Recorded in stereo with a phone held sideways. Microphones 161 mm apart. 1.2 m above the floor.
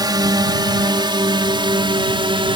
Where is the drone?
25° right (ahead or behind); by 2.6 s 30° right (ahead or behind).